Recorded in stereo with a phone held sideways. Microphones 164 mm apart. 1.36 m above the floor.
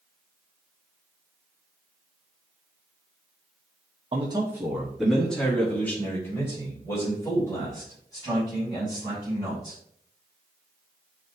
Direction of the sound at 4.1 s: 35° right (ahead or behind).